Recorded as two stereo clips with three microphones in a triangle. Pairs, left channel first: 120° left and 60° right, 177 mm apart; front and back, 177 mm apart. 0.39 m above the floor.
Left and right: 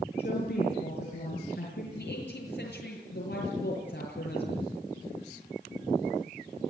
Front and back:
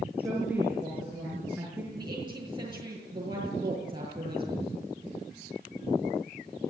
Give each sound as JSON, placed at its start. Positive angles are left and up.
{"t": 0.2, "sound": "a woman speaking", "azimuth_deg": 100, "distance_m": 5.5}
{"t": 1.9, "sound": "a woman speaking", "azimuth_deg": 115, "distance_m": 7.5}